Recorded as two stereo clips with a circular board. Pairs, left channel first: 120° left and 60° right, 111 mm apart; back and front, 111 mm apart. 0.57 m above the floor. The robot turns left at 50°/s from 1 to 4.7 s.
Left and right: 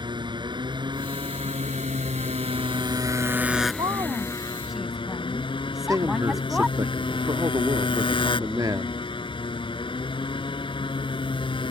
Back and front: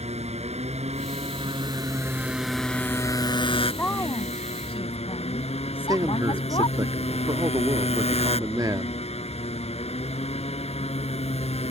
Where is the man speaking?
30° right.